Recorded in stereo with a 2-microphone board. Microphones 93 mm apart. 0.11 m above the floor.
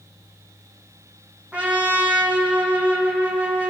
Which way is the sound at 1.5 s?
15° right (ahead or behind).